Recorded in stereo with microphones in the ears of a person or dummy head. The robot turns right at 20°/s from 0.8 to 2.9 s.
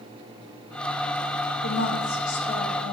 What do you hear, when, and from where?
1.6 s a woman speaking: 75° left (ahead or behind), 1.5 m; by 2.9 s 50° left (ahead or behind), 1.5 m